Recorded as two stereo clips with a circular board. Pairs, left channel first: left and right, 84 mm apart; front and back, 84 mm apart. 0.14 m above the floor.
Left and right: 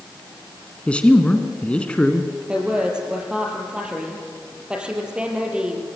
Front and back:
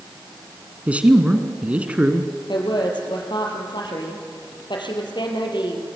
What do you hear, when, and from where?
0.9 s a man speaking: 140° left, 1.6 m
2.5 s a woman speaking: 10° right, 4 m